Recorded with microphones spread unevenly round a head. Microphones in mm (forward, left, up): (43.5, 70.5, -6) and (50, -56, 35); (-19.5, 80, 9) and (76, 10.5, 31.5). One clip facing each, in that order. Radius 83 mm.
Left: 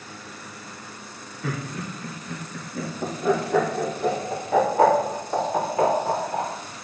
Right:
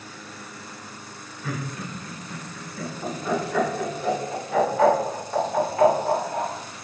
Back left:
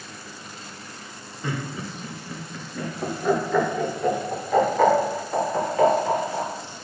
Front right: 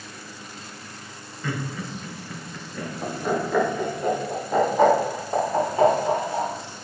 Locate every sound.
1.4 s laughter: 75° left, 3.5 m; by 6.5 s 30° left, 6.5 m